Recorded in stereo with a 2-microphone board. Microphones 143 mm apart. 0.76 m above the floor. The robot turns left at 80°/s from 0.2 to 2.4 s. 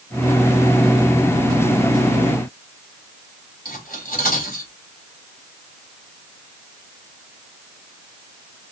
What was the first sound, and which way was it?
Cutlery clinking, 80° left.